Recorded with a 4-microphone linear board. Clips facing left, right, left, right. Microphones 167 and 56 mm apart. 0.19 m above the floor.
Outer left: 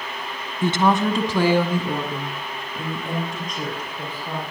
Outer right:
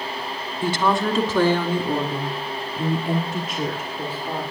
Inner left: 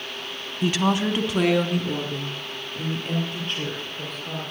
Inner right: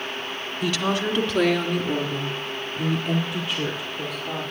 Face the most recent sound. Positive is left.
turn(degrees=-5)  # may be behind; listen again after turning